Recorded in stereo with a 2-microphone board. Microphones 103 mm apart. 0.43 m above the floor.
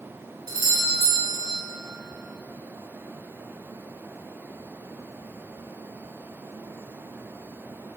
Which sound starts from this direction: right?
A doorbell, at 0.5 s.